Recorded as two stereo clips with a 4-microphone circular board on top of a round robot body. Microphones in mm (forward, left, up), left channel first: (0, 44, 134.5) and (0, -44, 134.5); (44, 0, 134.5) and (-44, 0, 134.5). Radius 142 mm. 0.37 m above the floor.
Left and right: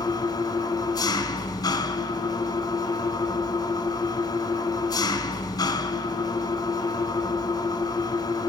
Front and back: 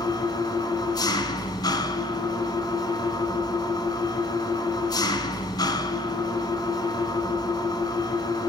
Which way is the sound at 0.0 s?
40° left.